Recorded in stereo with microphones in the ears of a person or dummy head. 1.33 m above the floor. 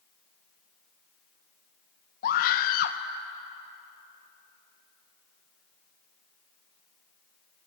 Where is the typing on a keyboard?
I don't hear typing on a keyboard.